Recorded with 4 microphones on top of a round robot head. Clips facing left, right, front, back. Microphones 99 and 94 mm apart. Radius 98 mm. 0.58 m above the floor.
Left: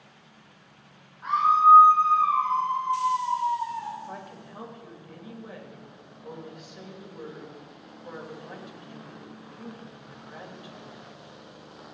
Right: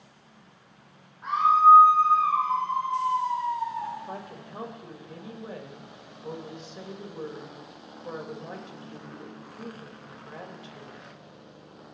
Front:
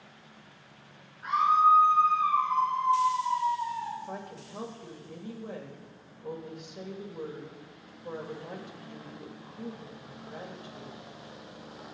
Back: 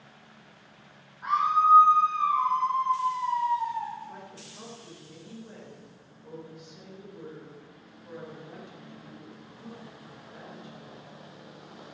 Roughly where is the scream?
Behind.